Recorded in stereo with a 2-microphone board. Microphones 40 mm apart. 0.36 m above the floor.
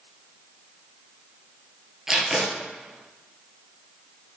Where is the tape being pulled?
15° right (ahead or behind), 1.1 m.